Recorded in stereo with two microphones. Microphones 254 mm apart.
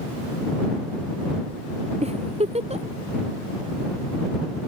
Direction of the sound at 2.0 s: 25° right (ahead or behind).